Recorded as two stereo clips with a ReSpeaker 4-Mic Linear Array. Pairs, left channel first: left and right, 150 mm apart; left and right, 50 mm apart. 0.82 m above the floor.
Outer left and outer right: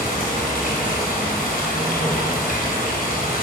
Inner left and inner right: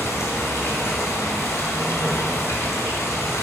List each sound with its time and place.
0.0 s running water: 85° left, 2.5 m